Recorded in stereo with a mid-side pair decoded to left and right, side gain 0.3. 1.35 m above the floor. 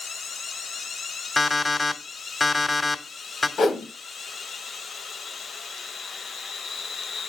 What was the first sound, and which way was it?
An alarm clock, 25° left.